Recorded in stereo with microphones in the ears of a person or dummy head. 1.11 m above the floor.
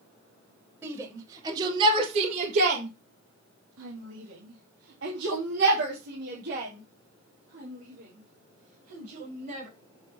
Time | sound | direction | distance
0.8 | a shout | 5° right (ahead or behind) | 2 m